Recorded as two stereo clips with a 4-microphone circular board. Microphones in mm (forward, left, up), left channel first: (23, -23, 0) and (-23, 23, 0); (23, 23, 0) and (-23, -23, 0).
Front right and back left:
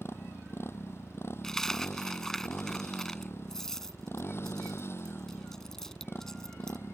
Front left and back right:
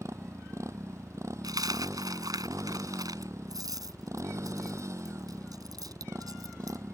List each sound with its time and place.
0.0 s a motorcycle: 95° right
1.4 s a dropped coin: 130° right